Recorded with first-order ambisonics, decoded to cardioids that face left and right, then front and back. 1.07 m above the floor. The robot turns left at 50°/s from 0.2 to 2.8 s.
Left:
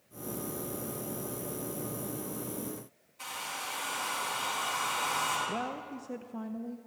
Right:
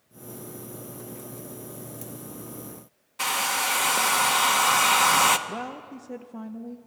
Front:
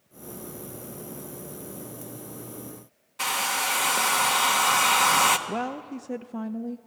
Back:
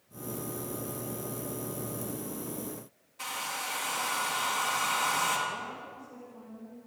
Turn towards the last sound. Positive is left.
turn(degrees=-5)